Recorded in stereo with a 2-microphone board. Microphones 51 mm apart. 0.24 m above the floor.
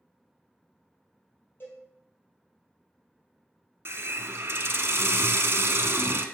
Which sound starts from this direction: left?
A cowbell, at 1.6 s.